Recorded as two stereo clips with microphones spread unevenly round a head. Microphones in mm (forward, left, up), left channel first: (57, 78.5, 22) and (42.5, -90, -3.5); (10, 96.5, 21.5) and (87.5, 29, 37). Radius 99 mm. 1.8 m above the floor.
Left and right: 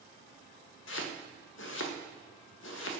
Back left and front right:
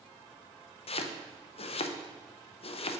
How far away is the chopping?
About 0.6 m.